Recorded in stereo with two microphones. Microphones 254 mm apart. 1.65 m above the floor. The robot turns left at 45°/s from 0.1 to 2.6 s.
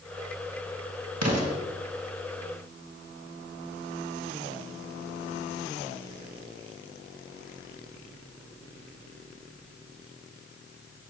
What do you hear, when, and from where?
1.2 s an explosion: 85° right, 1.5 m; by 1.6 s 80° right, 1.5 m